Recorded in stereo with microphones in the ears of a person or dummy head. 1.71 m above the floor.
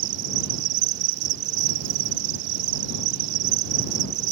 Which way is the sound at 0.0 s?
65° right (ahead or behind).